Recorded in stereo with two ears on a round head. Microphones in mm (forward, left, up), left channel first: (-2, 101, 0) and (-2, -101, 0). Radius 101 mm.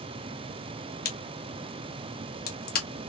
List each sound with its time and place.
1.1 s a crack: 40° left (ahead or behind), 1.3 m